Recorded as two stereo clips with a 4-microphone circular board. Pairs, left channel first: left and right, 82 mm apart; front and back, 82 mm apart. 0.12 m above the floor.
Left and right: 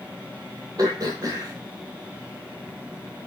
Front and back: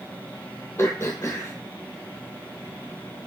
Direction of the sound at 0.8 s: 55° right.